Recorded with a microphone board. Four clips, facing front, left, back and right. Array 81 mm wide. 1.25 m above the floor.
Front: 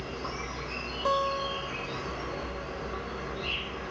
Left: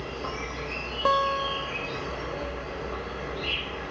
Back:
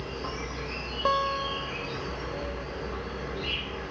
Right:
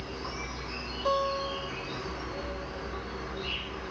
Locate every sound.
0.0 s an insect: 110° left, 1.4 m
1.1 s a guitar: 120° left, 0.5 m